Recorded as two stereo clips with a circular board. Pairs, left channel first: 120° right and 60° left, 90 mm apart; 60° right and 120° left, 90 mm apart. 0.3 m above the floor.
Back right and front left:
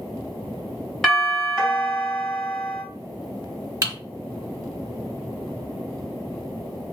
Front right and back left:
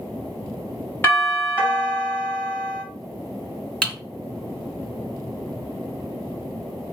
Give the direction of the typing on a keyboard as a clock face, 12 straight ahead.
11 o'clock.